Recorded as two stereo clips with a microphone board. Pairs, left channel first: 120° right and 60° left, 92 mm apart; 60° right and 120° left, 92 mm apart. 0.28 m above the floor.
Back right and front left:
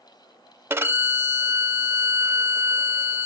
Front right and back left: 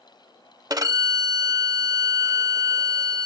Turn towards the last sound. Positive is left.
turn(degrees=110)